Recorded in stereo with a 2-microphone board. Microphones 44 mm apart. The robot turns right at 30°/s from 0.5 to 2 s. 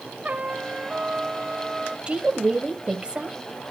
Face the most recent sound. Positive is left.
turn(degrees=-25)  # may be behind; listen again after turning